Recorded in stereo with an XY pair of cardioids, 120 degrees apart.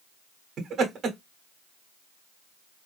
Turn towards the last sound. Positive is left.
turn(degrees=-45)